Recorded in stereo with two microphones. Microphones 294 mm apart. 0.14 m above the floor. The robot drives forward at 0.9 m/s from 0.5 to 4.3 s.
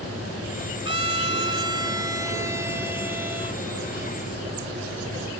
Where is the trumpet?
20° right (ahead or behind); by 3.6 s 5° right (ahead or behind).